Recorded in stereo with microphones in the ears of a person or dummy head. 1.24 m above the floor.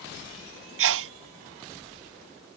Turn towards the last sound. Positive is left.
turn(degrees=-75)  # may be behind; listen again after turning